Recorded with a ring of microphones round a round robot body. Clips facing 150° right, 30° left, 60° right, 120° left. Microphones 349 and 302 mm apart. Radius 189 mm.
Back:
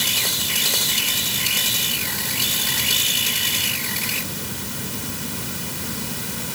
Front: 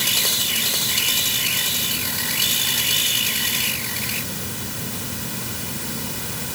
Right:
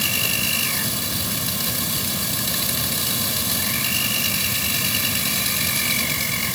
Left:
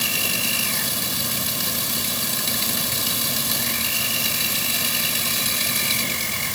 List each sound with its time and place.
Only background noise.